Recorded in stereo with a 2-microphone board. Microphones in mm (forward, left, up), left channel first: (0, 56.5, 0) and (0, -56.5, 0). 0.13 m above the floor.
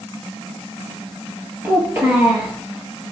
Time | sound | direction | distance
1.6 | a child speaking | 20° right (ahead or behind) | 1.6 m